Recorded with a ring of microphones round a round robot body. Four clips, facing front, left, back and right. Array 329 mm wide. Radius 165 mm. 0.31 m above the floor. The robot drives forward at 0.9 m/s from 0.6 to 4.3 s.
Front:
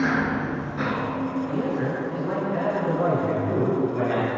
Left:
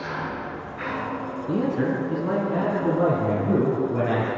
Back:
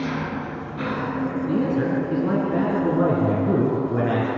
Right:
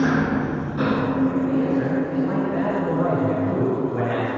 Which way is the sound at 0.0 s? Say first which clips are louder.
Right 10 dB, front 4 dB; 75° right.